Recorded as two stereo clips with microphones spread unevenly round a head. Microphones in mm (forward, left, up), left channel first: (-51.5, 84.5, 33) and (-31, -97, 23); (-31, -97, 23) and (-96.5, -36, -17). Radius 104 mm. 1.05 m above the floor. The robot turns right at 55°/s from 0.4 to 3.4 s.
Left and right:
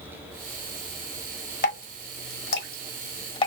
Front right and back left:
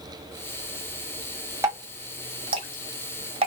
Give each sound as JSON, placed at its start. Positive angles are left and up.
{"t": 1.6, "sound": "dripping", "azimuth_deg": 50, "distance_m": 1.2}